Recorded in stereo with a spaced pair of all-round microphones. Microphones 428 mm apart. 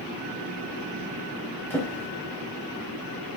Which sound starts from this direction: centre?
A drawer, at 1.7 s.